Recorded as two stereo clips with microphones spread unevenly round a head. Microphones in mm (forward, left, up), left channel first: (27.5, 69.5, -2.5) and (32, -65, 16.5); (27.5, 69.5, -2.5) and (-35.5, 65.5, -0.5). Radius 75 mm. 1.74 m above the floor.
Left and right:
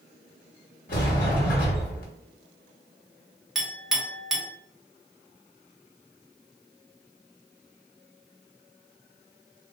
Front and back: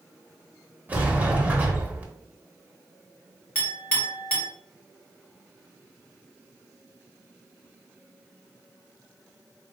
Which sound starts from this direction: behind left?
A sliding door, at 0.9 s.